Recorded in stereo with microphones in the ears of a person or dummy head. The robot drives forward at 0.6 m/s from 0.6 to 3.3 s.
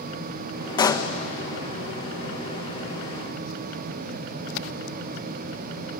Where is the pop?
25° left (ahead or behind), 1.2 m; by 1.1 s 20° left (ahead or behind), 1.4 m.